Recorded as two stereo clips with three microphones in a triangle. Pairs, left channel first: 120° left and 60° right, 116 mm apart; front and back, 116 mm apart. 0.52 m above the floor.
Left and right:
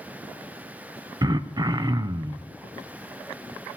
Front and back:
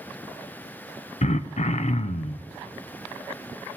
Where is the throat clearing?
5° right, 0.5 m.